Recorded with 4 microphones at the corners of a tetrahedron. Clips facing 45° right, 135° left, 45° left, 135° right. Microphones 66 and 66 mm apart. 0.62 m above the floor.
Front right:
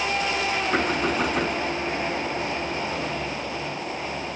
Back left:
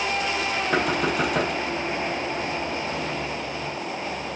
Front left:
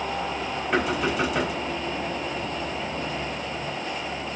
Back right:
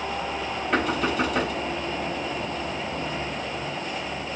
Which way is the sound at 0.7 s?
130° left.